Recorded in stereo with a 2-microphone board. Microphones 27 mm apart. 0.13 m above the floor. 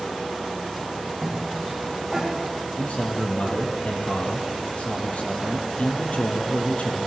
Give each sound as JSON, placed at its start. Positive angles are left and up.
{"t": 1.2, "sound": "a cough", "side_deg": 0, "distance_m": 4.5}
{"t": 2.8, "sound": "a man speaking", "side_deg": 60, "distance_m": 4.5}